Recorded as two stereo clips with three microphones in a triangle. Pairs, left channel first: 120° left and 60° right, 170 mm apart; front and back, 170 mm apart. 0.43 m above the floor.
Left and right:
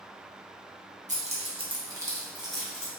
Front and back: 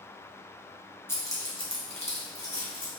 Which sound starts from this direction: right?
Keys jangling, at 1.1 s.